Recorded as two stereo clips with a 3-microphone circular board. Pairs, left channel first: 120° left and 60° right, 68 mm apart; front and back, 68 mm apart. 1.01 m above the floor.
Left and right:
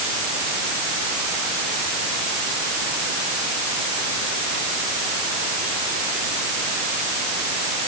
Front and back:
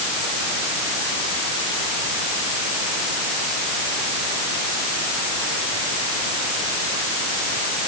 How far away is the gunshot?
No gunshot in this recording.